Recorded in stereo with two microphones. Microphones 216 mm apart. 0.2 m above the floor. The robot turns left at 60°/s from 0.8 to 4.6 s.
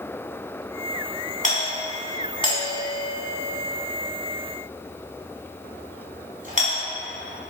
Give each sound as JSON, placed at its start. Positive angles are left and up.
{"t": 1.4, "sound": "a doorbell", "side_deg": 40, "distance_m": 2.0}